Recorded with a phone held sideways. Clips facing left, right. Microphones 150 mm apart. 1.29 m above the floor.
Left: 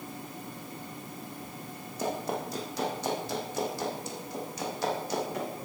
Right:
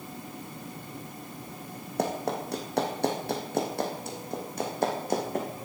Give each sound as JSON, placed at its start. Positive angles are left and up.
{"t": 2.0, "sound": "running footsteps", "side_deg": -65, "distance_m": 3.0}